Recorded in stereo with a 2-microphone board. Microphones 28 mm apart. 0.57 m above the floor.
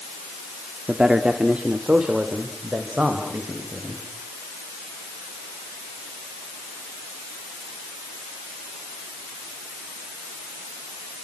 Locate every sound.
0.9 s a man speaking: 25° right (ahead or behind), 1.2 m; by 4.0 s 45° right (ahead or behind), 4 m